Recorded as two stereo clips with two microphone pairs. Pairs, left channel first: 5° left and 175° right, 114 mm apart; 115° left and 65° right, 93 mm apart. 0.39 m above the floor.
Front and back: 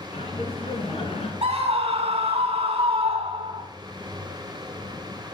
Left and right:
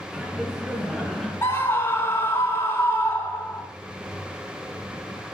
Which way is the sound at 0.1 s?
25° left.